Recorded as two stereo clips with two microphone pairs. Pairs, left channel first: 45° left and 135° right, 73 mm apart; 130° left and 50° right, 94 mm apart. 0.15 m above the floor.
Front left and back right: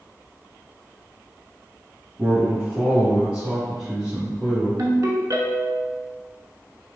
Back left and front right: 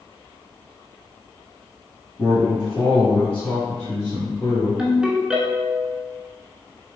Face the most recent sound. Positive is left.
turn(degrees=-125)